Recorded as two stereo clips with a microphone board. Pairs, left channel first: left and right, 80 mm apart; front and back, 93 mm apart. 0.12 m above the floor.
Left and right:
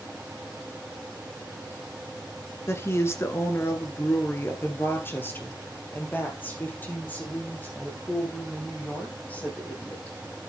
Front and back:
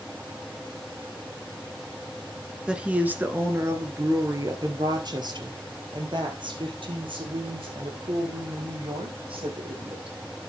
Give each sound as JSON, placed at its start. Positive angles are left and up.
{"t": 2.7, "sound": "a woman speaking", "azimuth_deg": 105, "distance_m": 1.5}